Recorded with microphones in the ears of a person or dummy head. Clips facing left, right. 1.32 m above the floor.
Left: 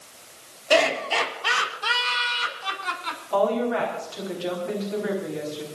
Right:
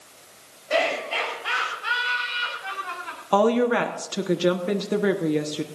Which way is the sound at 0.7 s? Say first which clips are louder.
Left 3 dB; 85° left.